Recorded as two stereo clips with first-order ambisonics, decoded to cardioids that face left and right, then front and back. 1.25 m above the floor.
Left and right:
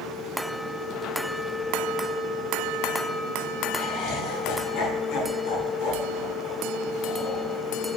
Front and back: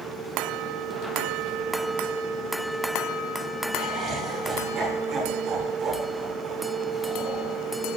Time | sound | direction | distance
3.8 | laughter | 120° left | 2.5 m